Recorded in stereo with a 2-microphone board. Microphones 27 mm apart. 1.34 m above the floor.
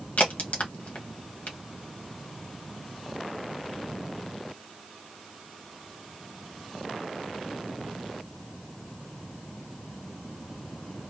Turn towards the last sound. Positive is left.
turn(degrees=80)